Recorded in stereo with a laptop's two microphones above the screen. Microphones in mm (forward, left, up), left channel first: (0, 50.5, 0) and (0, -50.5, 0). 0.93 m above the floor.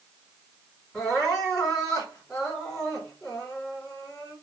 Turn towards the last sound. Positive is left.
turn(degrees=5)  # may be behind; listen again after turning